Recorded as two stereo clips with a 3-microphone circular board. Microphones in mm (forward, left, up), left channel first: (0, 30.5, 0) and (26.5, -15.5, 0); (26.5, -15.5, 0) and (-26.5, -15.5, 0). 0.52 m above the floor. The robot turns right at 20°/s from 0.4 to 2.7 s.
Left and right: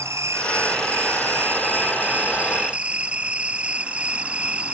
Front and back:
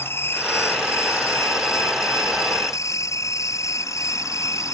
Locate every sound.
0.0 s an insect: 40° right; by 4.7 s 5° left